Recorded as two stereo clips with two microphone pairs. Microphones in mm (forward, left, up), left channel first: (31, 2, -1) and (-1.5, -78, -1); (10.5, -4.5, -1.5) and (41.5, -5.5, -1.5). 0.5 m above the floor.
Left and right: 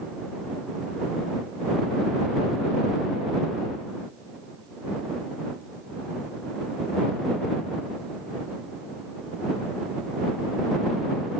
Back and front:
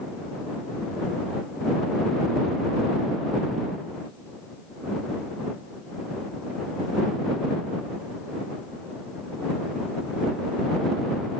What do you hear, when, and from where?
Only background noise.